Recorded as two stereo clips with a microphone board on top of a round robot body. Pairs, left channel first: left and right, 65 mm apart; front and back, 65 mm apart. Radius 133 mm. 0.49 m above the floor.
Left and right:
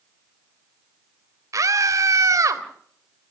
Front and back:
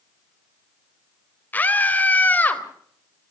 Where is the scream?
60° right, 3.5 m.